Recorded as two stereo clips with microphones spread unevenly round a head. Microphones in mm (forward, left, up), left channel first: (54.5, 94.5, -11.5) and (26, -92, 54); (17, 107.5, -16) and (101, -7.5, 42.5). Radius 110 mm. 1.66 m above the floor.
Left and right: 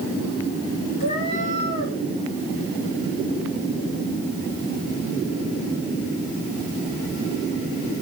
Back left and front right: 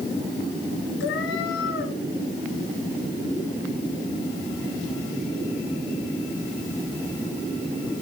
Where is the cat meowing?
145° left, 3.5 m.